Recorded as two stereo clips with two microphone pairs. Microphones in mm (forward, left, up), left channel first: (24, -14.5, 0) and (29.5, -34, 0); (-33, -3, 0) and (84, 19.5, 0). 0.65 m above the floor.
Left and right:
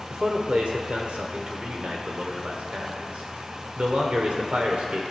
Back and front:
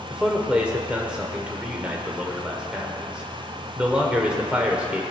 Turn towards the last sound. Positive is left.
turn(degrees=-70)